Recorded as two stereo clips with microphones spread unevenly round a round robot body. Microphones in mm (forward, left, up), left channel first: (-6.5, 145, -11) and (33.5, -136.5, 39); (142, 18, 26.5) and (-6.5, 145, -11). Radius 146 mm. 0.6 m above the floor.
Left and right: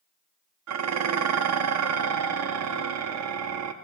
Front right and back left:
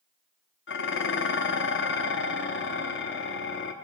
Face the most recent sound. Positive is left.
turn(degrees=-55)